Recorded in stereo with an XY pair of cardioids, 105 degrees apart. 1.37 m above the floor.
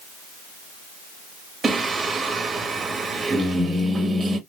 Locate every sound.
1.6 s singing: 35° right, 1.4 m